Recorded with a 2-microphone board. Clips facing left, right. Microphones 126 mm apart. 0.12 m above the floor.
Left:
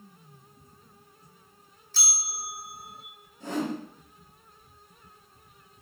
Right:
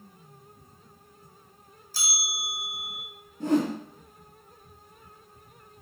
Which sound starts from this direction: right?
A whoosh, at 3.4 s.